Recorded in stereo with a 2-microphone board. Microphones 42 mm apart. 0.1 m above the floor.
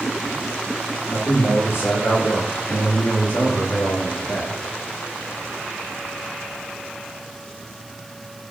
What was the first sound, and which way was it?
A man speaking, 80° left.